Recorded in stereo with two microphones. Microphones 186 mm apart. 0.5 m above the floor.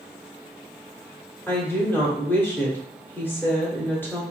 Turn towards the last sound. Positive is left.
turn(degrees=10)  # may be behind; listen again after turning